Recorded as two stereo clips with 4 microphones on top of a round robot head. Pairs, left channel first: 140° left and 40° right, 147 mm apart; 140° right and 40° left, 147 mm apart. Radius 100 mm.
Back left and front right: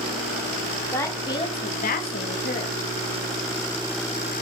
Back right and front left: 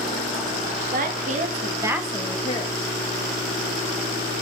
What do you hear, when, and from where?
0.9 s a woman speaking: 65° left, 1.8 m; by 2.9 s 175° right, 1.5 m